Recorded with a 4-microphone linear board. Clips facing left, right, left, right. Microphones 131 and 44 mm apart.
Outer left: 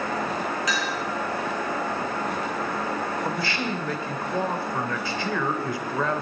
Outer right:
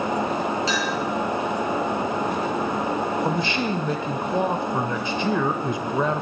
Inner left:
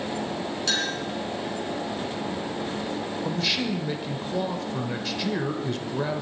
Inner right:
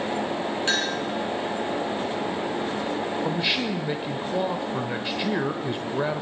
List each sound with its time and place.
0.7 s a clink: 30° right (ahead or behind), 5 m
3.2 s a man speaking: 20° right (ahead or behind), 0.9 m